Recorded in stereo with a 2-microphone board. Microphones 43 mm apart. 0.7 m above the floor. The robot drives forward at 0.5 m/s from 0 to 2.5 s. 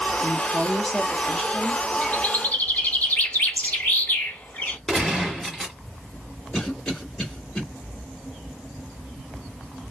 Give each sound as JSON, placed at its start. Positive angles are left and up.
{"t": 0.2, "sound": "a woman speaking", "side_deg": 35, "distance_m": 0.7}
{"t": 2.0, "sound": "a bird", "side_deg": 35, "distance_m": 1.1}
{"t": 4.9, "sound": "a gunshot", "side_deg": 10, "distance_m": 2.0}
{"t": 6.5, "sound": "a cough", "side_deg": 15, "distance_m": 2.5}